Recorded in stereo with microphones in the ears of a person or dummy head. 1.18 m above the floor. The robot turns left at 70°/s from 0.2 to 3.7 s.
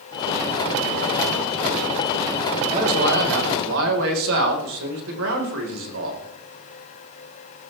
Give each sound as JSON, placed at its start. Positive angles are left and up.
{"t": 2.7, "sound": "a man speaking", "azimuth_deg": -35, "distance_m": 4.0}